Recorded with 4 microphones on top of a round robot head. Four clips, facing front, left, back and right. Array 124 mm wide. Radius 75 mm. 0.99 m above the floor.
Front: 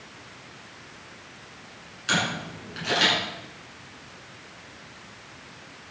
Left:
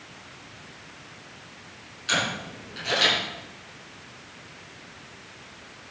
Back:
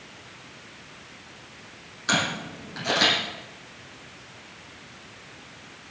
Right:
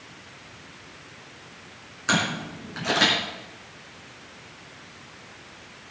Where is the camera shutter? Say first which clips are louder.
Right 3 dB, back 1 dB; 125° right, 7 m.